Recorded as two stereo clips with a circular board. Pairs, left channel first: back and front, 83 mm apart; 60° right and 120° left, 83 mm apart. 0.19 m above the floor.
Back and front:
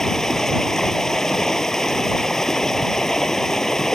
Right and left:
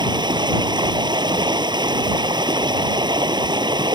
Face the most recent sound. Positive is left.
turn(degrees=95)